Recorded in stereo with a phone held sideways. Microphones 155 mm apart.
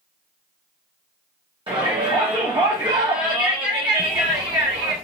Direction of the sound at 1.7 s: 30° right (ahead or behind).